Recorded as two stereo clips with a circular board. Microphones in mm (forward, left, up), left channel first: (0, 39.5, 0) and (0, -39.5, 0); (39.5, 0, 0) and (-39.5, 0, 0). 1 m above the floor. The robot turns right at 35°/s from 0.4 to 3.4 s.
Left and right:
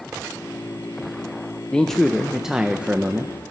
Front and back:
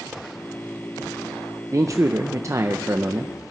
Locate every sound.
1.7 s a man speaking: 165° left, 0.5 m; by 3.3 s 135° right, 0.5 m